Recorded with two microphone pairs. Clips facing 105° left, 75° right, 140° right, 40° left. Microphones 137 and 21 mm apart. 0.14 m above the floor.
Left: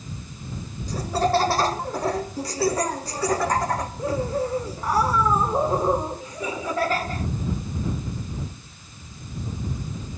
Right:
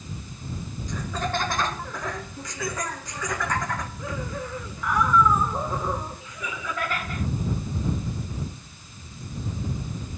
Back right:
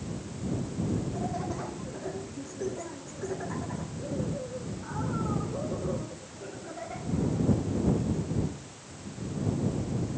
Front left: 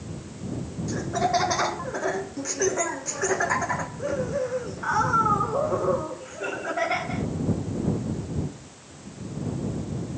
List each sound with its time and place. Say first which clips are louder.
0.9 s laughter: left 8 dB, front left 12 dB; 50° left